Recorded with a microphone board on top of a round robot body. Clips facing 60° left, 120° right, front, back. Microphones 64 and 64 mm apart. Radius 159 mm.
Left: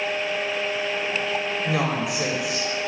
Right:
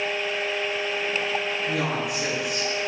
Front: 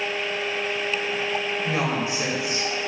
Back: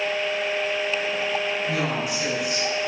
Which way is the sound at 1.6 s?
65° left.